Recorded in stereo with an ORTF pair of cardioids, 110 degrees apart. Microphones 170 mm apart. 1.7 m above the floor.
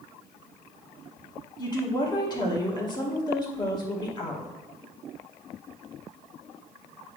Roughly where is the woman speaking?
Ahead left.